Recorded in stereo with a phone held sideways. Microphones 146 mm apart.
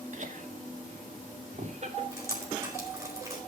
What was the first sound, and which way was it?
Laughter, 55° right (ahead or behind).